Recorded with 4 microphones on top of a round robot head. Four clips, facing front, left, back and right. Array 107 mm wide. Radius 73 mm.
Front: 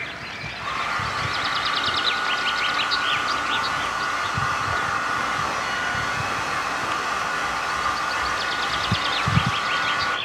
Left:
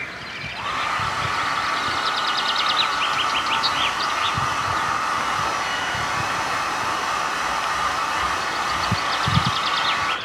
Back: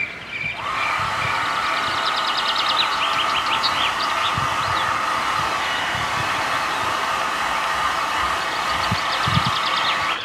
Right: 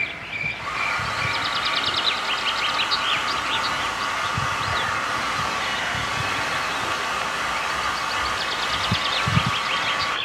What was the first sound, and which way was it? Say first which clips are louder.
A hair dryer: left 3 dB, back 3 dB; 150° left.